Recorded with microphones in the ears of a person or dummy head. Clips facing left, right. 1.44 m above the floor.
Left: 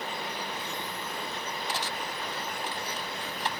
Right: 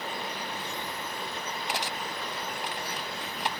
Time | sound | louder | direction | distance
1.7 | cutlery clinking | right 2 dB | 20° right (ahead or behind) | ?